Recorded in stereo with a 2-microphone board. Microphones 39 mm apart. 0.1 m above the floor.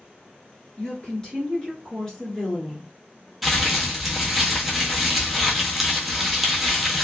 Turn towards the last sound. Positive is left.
turn(degrees=0)  # may be behind; listen again after turning